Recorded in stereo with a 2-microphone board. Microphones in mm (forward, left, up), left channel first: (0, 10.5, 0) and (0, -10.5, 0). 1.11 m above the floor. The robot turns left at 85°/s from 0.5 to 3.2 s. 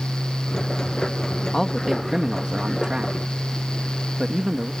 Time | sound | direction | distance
1.5 | a man speaking | 15° left | ?